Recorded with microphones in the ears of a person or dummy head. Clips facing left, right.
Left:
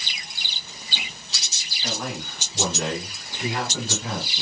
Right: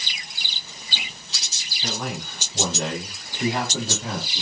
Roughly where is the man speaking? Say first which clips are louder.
Right 1 dB; right.